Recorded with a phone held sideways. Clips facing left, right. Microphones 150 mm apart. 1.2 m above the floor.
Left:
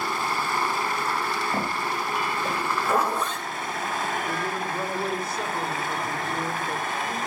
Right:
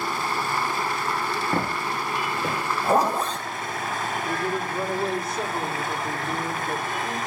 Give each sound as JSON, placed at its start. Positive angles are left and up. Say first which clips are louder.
{"t": 1.5, "sound": "footsteps", "louder": "right 1 dB", "side_deg": -80, "distance_m": 8.0}
{"t": 2.8, "sound": "a zipper", "louder": "right 5 dB", "side_deg": -40, "distance_m": 2.0}
{"t": 4.2, "sound": "a woman speaking", "louder": "right 2 dB", "side_deg": -25, "distance_m": 3.5}